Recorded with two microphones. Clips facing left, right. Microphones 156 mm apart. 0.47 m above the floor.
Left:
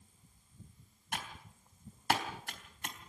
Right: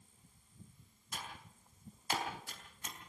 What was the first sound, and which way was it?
Typing on a keyboard, 75° left (ahead or behind).